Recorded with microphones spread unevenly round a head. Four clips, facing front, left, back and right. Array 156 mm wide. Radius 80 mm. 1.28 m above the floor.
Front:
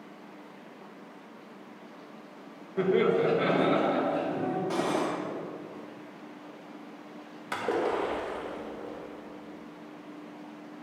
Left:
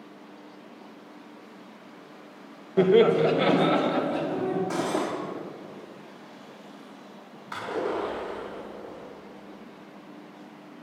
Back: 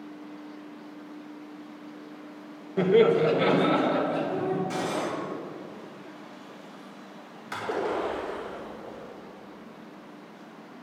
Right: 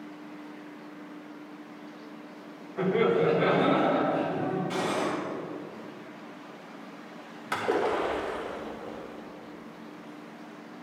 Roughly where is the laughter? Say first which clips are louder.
Left 6 dB, back 4 dB; behind left.